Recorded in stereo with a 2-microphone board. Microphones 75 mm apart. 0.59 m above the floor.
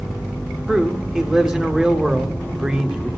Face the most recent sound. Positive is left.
turn(degrees=-10)  # may be behind; listen again after turning